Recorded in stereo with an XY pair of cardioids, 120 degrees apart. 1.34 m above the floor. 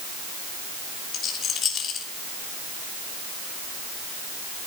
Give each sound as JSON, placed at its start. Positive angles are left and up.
{"t": 1.1, "sound": "a rattle", "azimuth_deg": 60, "distance_m": 3.0}